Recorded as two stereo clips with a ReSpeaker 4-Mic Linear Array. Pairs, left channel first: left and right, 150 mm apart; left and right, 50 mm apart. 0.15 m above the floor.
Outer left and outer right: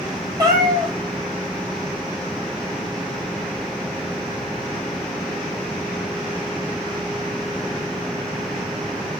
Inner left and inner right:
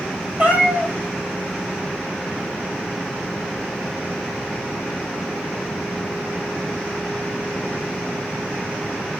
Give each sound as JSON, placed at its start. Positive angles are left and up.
{"t": 0.4, "sound": "a cat meowing", "side_deg": -25, "distance_m": 0.8}